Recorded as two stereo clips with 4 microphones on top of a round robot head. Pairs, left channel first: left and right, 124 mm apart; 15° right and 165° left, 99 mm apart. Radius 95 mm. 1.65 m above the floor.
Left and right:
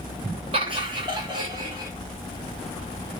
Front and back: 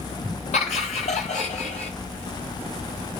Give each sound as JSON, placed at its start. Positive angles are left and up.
{"t": 0.5, "sound": "laughter", "azimuth_deg": -35, "distance_m": 3.0}